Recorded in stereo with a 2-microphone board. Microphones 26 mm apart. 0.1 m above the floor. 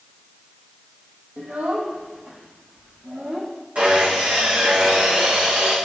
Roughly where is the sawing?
Right.